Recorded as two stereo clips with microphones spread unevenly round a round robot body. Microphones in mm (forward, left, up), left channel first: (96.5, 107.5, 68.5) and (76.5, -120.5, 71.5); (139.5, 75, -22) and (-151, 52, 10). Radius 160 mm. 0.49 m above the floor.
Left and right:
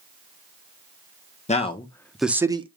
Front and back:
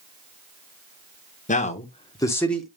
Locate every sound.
1.5 s a man speaking: 45° left, 1.2 m; by 2.7 s 70° right, 1.0 m